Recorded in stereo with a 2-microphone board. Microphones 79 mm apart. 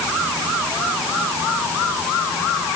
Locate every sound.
Only background noise.